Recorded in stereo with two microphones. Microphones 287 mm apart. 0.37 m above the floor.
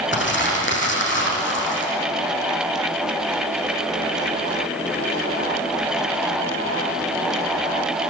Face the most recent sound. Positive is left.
turn(degrees=40)  # may be behind; listen again after turning